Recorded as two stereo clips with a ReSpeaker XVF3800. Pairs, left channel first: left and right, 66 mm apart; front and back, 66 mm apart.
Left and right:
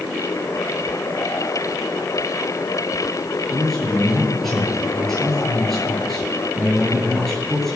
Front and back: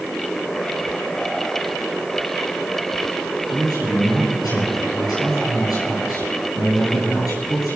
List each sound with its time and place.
3.5 s a man speaking: 5° left, 8 m